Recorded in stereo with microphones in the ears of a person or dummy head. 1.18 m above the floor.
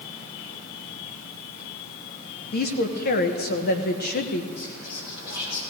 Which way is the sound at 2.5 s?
45° left (ahead or behind).